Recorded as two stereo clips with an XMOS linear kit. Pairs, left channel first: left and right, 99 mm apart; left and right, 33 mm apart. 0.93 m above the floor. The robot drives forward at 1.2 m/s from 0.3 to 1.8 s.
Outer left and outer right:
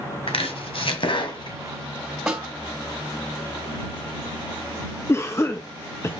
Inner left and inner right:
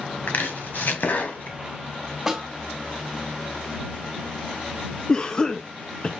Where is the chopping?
70° left (ahead or behind), 1.7 m; by 1.6 s 50° left (ahead or behind), 2 m.